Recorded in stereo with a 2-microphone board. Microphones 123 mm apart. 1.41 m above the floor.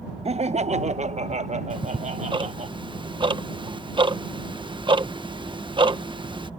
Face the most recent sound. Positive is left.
turn(degrees=-40)  # may be behind; listen again after turning